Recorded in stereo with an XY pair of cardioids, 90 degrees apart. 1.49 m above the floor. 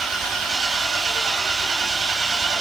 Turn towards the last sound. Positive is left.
turn(degrees=-65)